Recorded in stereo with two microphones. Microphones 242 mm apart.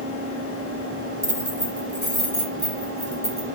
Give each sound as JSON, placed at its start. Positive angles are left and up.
{"t": 1.2, "sound": "keys jangling", "side_deg": -50, "distance_m": 1.5}